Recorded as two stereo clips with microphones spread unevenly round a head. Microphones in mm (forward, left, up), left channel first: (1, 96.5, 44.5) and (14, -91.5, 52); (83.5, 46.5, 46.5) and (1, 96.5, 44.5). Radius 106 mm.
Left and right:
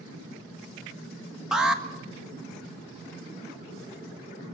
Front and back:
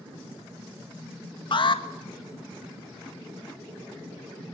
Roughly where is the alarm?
Ahead.